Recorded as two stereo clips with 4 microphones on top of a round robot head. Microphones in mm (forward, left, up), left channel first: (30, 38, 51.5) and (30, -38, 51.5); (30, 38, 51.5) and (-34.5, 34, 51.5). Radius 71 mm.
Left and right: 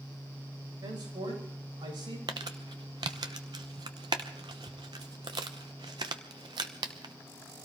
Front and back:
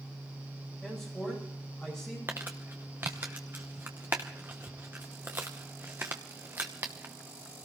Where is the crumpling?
110° right, 0.8 m.